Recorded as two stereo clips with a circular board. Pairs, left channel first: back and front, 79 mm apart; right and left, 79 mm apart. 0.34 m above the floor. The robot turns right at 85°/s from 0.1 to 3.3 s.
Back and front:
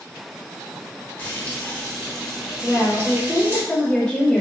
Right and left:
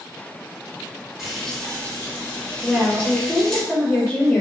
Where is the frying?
170° left, 1.2 m; by 3.6 s 10° right, 1.2 m.